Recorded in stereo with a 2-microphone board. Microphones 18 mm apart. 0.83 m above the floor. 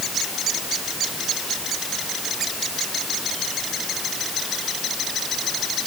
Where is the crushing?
I don't hear crushing.